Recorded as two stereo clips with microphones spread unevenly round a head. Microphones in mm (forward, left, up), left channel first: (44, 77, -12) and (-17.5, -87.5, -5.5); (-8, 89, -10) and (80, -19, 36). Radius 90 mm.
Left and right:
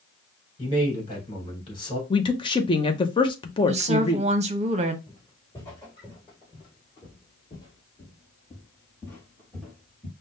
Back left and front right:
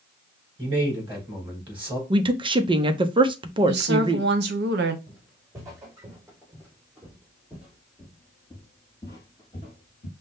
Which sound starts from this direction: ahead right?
A woman speaking, at 3.7 s.